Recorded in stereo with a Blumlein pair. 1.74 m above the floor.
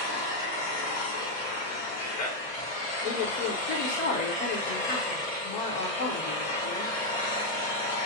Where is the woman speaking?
45° left, 1.3 m.